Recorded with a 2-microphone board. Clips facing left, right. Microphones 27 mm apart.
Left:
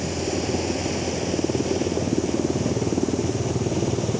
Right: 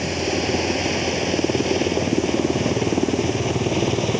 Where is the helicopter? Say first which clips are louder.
Right 3 dB; 35° right (ahead or behind); by 4.2 s 50° right (ahead or behind).